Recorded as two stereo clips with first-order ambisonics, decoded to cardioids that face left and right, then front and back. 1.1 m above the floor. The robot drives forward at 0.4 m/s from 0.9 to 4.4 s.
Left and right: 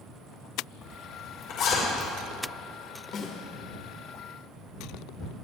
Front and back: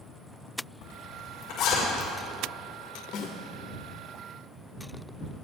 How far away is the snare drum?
About 2.5 m.